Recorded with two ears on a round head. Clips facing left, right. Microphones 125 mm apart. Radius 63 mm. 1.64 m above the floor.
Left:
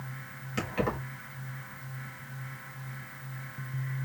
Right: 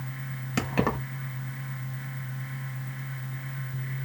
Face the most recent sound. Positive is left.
turn(degrees=-60)  # may be behind; listen again after turning